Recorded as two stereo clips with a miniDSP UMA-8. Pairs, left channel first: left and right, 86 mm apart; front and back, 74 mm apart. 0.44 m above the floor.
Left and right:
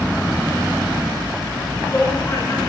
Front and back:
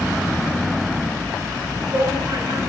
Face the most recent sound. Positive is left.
turn(degrees=155)